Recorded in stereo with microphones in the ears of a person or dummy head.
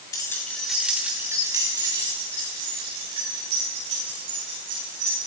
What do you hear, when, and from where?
0.1 s keys jangling: 15° left (ahead or behind), 2.0 m; by 5.3 s 40° right (ahead or behind), 7.5 m